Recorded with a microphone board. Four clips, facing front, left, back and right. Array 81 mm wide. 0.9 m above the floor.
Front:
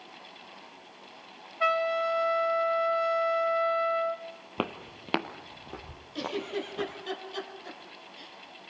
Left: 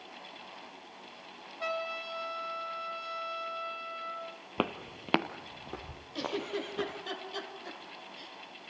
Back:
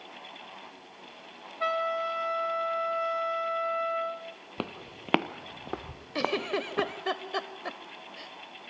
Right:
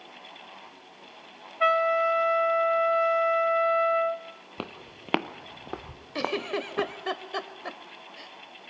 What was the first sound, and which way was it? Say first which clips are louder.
A trumpet: right 14 dB, front 3 dB; 75° right.